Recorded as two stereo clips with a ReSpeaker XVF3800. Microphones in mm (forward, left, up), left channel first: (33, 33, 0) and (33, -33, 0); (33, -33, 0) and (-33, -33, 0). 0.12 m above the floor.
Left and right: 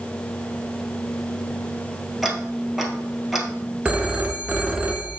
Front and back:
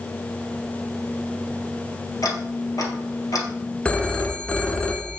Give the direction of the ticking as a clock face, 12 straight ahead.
12 o'clock.